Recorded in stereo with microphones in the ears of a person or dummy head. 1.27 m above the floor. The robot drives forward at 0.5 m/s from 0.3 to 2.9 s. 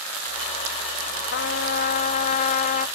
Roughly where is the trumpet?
Left.